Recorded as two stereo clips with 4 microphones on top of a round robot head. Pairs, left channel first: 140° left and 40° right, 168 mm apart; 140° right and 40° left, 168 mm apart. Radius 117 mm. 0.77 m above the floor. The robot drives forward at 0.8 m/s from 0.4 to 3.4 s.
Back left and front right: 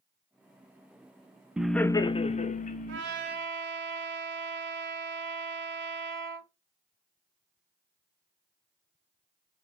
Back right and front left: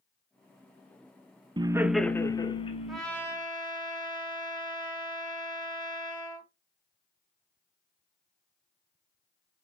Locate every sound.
1.6 s laughter: 40° left, 0.6 m; by 3.0 s 170° left, 1.1 m
2.9 s a trumpet: 50° right, 1.0 m; by 6.5 s 75° right, 0.8 m